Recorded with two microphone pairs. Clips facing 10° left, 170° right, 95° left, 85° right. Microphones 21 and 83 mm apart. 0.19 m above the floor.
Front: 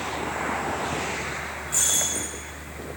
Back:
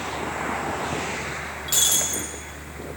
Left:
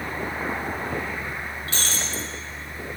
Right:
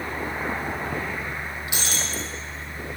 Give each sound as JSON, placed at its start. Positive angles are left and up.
{"t": 1.7, "sound": "breaking glass", "azimuth_deg": -160, "distance_m": 5.0}